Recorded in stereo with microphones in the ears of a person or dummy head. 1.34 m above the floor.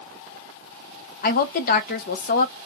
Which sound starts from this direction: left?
A woman speaking, at 1.2 s.